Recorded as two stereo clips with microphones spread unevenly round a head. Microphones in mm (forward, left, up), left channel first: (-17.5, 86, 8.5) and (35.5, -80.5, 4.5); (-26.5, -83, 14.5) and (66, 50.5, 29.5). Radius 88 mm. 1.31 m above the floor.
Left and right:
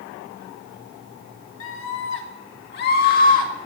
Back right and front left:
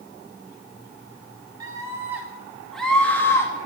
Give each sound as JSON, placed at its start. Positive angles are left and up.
{"t": 1.6, "sound": "a scream", "azimuth_deg": 130, "distance_m": 3.0}